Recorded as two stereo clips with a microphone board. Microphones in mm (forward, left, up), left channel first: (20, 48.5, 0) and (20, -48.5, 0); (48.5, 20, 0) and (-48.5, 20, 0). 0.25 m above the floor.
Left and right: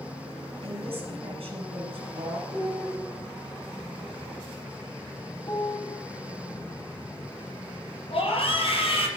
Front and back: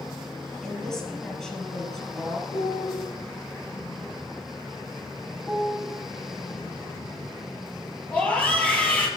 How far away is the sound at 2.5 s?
About 7 m.